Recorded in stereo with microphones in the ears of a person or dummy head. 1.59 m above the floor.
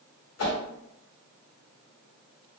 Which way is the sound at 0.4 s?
75° left (ahead or behind).